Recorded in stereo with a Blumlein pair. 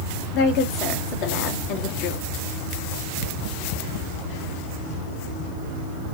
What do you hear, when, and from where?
0.3 s a woman speaking: 40° left, 1.8 m